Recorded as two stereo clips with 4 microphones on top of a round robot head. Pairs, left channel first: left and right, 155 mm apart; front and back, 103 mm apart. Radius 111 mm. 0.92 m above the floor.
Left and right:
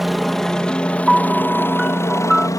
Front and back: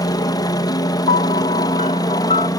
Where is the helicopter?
Straight ahead; by 2.6 s 30° left.